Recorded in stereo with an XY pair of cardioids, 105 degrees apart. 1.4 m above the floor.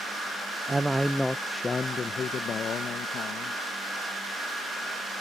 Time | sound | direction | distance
0.7 | a man speaking | 15° right | ?